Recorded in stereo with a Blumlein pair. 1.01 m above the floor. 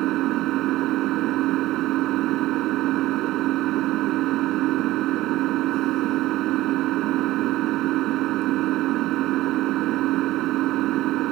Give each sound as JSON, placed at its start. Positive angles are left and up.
{"t": 0.0, "sound": "an engine running", "azimuth_deg": -35}